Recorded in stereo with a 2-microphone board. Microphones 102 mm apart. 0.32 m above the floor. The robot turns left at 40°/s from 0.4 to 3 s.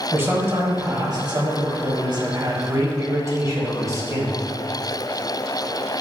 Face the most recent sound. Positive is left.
turn(degrees=-135)